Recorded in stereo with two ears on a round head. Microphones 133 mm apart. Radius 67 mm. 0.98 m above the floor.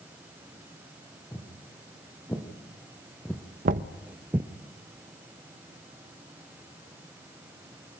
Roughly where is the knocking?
Right.